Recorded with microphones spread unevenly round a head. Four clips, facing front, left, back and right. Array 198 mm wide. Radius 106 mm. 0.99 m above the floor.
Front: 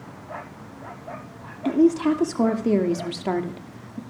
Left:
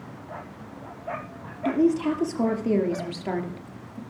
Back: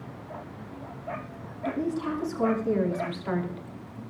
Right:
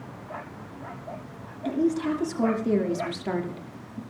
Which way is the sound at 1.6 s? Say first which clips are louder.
Left 3 dB, front 11 dB; 15° left.